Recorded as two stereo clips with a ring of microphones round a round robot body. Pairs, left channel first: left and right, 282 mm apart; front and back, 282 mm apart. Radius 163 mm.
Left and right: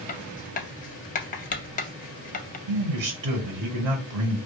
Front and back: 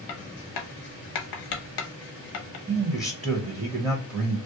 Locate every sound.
0.1 s writing: 30° left, 0.5 m
2.7 s a man speaking: 90° right, 1.0 m